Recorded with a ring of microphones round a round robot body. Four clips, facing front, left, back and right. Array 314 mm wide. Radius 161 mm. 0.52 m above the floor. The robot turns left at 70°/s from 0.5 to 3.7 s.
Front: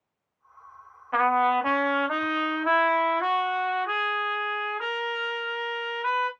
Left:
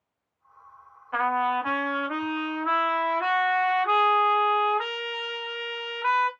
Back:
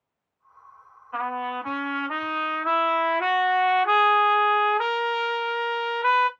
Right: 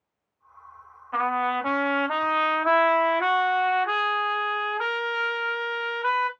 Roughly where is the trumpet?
Ahead.